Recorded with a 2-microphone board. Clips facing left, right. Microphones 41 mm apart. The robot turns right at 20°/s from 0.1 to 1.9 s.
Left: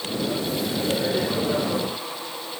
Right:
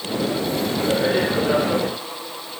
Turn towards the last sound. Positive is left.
No sound to turn to.